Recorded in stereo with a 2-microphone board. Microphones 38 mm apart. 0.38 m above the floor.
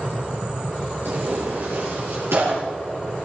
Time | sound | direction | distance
1.1 | tearing paper | 85° right | 6 m